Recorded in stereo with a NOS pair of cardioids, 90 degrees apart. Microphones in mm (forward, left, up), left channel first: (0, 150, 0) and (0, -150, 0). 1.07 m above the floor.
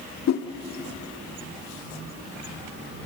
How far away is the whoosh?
About 1.9 m.